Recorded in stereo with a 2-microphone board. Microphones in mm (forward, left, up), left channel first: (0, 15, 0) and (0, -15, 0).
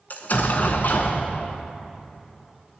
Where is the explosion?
65° left (ahead or behind), 0.8 m.